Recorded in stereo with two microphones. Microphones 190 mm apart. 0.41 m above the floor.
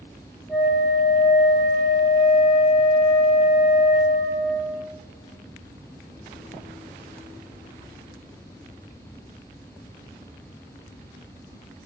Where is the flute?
Centre (ahead or behind), 1.0 m.